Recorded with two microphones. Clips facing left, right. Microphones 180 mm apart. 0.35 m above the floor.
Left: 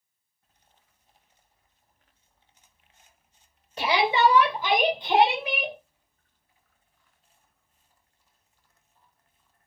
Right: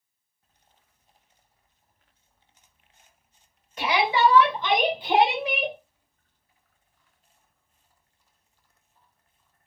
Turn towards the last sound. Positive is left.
turn(degrees=-30)  # may be behind; listen again after turning